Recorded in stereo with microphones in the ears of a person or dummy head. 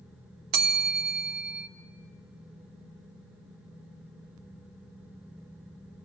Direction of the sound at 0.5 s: 45° right (ahead or behind).